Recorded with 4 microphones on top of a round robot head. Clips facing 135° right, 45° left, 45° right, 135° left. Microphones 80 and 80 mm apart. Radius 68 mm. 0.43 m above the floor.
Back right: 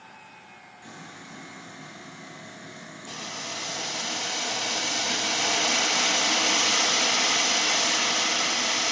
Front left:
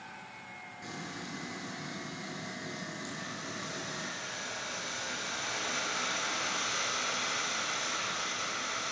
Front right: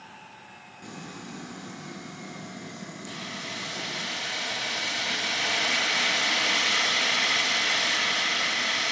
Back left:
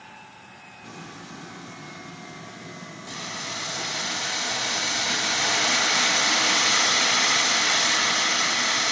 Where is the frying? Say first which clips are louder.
Front left 2 dB, front right 1 dB; 25° right, 8.5 m.